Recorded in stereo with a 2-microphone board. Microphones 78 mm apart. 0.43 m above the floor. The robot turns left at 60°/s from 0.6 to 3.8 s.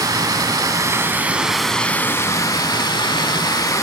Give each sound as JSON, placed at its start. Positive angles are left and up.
{"t": 0.0, "sound": "running water", "azimuth_deg": -120, "distance_m": 0.7}